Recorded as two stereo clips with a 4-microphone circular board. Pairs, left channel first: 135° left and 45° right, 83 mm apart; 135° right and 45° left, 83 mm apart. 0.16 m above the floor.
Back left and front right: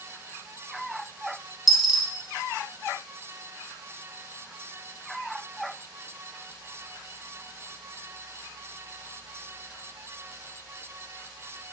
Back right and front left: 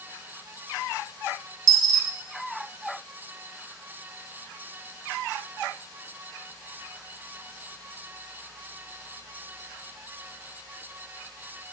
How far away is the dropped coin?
About 0.6 m.